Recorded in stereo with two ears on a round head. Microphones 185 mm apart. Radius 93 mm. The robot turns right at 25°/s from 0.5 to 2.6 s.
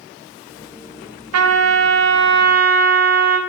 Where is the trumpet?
75° right, 0.6 m; by 3.4 s 45° right, 0.6 m.